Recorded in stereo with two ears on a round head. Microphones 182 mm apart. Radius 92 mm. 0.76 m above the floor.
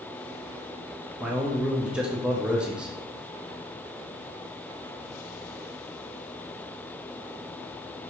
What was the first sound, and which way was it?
A man speaking, 5° right (ahead or behind).